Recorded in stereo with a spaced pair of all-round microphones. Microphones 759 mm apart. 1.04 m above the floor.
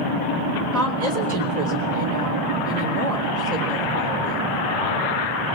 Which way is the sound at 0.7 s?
25° right (ahead or behind).